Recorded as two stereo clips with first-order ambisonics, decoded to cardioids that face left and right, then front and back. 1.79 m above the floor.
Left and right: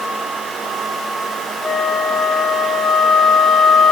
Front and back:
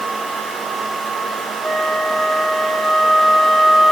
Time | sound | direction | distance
1.6 | a flute | 160° right | 1.0 m